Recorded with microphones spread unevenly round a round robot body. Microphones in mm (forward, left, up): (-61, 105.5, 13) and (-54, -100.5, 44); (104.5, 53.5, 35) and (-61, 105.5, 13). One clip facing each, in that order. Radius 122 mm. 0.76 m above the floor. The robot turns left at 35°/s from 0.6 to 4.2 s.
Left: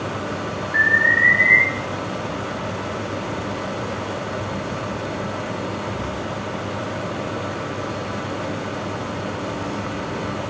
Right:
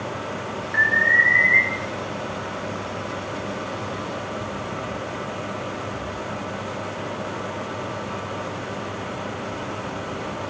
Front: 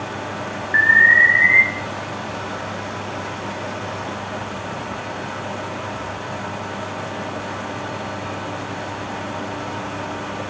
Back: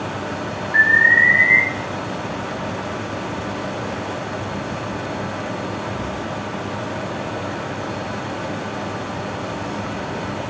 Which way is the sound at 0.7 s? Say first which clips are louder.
Left 3 dB, front 1 dB; 10° left.